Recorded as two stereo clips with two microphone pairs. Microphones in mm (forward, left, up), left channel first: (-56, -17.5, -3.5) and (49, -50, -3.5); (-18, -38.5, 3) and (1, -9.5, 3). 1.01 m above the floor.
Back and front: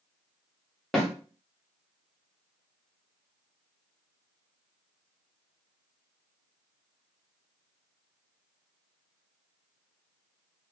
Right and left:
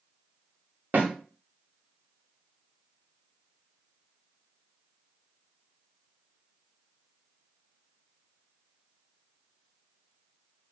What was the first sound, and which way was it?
A snare drum, 75° left.